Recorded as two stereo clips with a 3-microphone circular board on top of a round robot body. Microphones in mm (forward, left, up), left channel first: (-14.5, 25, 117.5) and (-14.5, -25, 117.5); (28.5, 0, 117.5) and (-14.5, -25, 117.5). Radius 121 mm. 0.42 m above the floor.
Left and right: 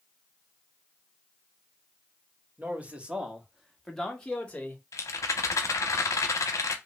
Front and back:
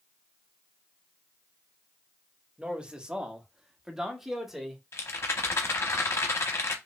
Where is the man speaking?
100° right, 1.3 m; by 4.8 s 125° left, 1.3 m.